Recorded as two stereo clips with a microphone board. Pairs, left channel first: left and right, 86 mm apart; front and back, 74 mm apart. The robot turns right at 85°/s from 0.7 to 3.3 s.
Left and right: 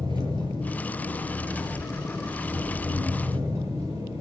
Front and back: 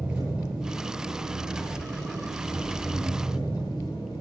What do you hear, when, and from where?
0.0 s an engine running: 100° left, 9.5 m; by 4.2 s 35° right, 9.5 m